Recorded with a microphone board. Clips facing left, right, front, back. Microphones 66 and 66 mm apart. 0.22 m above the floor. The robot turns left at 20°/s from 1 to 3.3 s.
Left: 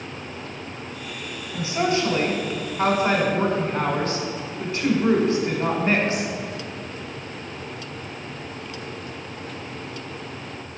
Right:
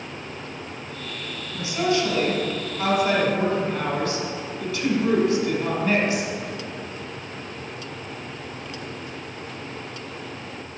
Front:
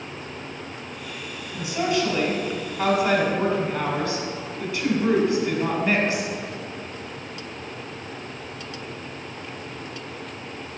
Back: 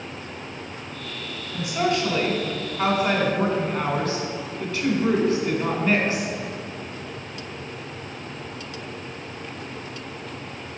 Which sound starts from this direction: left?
A woman speaking, at 1.5 s.